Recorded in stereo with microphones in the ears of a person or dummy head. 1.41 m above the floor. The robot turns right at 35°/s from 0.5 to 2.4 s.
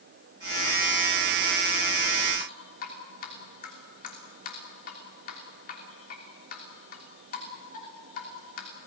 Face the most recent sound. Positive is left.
turn(degrees=45)  # may be behind; listen again after turning